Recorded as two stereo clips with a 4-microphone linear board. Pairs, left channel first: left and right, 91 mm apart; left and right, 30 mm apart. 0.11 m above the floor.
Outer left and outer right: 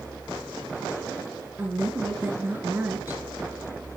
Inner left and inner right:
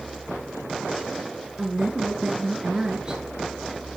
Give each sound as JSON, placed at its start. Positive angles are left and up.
{"t": 1.6, "sound": "a woman speaking", "side_deg": -25, "distance_m": 1.6}